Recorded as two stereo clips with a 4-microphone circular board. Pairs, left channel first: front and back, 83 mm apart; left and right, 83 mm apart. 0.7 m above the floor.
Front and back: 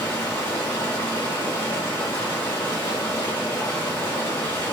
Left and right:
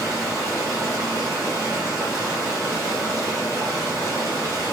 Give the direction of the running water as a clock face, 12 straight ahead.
2 o'clock.